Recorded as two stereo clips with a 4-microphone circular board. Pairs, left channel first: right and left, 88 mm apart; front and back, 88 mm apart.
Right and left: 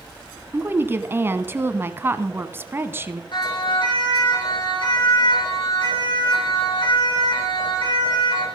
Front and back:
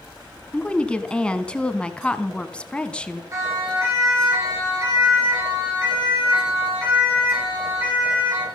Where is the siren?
120° right, 9 m; by 8.4 s 110° right, 12 m.